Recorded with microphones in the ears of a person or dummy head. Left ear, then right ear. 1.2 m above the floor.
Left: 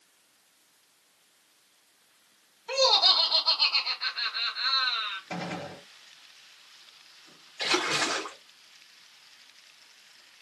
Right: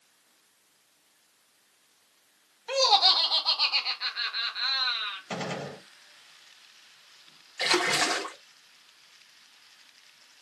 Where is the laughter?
35° right (ahead or behind), 0.9 m.